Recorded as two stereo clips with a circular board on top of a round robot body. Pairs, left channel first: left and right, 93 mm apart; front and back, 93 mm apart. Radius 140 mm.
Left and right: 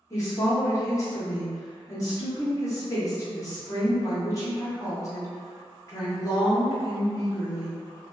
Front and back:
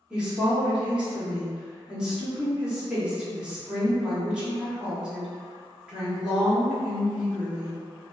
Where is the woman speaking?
105° left, 1.4 m.